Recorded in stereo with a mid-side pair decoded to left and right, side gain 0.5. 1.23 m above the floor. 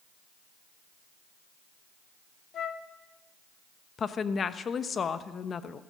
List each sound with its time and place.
2.5 s a flute: 50° left, 0.8 m
4.0 s a woman speaking: 40° left, 1.0 m